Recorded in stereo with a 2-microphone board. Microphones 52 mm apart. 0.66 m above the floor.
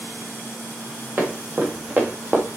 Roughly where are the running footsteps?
Right.